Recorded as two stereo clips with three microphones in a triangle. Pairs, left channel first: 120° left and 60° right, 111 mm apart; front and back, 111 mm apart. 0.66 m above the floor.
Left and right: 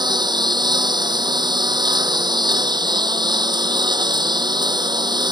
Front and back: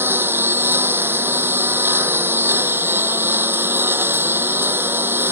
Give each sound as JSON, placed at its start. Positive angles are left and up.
{"t": 0.0, "sound": "a lawn mower", "azimuth_deg": -110}